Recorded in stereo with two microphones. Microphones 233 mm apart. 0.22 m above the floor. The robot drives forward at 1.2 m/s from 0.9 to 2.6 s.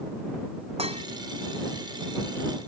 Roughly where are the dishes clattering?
Right.